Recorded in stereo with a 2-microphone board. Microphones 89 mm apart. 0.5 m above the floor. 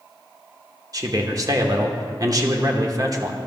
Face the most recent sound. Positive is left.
turn(degrees=-45)  # may be behind; listen again after turning